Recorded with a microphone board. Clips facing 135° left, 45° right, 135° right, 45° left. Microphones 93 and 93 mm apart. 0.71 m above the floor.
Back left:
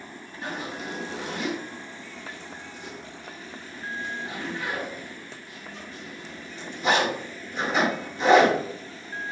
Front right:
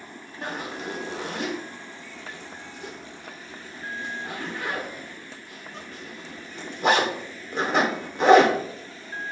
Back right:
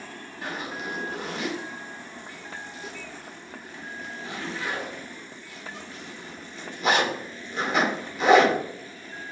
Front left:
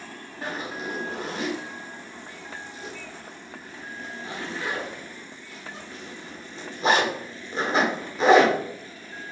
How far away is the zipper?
About 1.3 m.